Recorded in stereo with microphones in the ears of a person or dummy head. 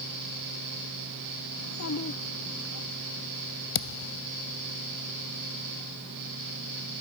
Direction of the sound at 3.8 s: 70° left (ahead or behind).